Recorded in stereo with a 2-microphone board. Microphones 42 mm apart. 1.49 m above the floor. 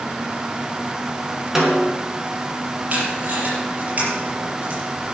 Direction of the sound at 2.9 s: 35° right (ahead or behind).